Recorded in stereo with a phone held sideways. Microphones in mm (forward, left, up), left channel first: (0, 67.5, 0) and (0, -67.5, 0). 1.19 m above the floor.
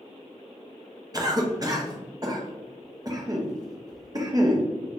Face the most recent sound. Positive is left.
turn(degrees=-30)  # may be behind; listen again after turning